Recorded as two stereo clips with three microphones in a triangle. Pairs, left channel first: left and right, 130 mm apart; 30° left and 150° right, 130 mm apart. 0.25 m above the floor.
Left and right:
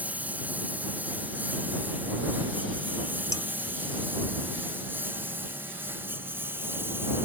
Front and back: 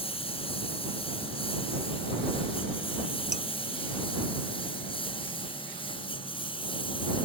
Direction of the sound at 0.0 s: 10° right.